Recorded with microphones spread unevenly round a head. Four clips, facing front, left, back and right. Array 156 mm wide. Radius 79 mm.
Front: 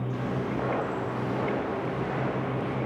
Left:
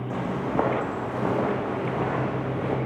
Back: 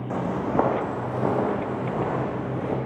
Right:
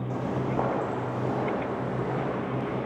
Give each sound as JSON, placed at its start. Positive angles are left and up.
{"t": 0.1, "sound": "footsteps", "azimuth_deg": 165, "distance_m": 4.0}